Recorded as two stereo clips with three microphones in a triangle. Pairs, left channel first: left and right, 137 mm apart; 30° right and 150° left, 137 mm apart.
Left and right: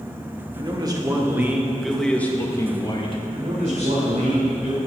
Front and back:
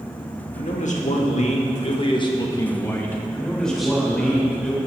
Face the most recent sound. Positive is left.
turn(degrees=-115)